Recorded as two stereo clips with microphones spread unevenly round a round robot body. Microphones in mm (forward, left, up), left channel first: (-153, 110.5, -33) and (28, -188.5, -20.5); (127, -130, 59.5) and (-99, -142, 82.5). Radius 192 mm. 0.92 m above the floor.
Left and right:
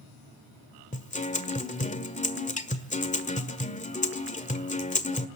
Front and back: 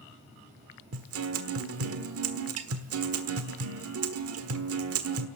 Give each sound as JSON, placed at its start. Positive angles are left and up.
{"t": 0.9, "sound": "a guitar", "azimuth_deg": -170, "distance_m": 1.5}